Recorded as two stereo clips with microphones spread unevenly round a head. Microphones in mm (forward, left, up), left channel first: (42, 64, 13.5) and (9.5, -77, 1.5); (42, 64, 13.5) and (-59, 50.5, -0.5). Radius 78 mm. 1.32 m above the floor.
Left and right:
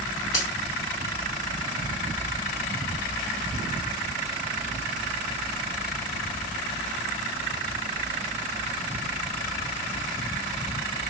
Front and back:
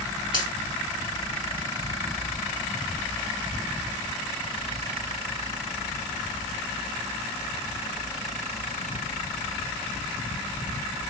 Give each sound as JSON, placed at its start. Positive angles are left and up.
{"t": 0.3, "sound": "a finger snap", "azimuth_deg": 150, "distance_m": 2.0}